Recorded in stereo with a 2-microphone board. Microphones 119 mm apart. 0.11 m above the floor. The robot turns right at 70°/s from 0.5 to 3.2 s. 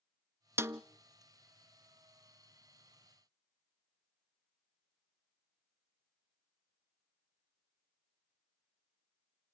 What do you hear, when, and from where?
0.6 s a snare drum: 20° right (ahead or behind), 0.5 m